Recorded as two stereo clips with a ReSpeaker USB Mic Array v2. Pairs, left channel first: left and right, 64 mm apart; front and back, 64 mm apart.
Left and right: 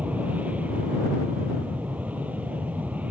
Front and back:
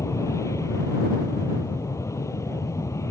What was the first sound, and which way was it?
An aircraft, 25° right.